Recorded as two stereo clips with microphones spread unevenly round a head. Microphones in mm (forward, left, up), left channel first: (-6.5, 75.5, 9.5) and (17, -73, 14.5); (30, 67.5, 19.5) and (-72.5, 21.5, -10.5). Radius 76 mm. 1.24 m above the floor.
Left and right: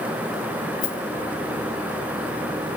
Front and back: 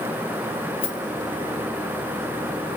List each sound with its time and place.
0.8 s a rattle: 45° left, 3 m